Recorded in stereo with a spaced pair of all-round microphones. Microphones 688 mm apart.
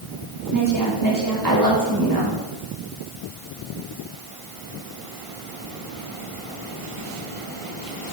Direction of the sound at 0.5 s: 30° right (ahead or behind).